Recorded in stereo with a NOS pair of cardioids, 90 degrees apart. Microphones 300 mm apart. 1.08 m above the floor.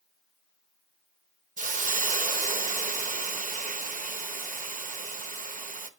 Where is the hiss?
25° right, 0.9 m.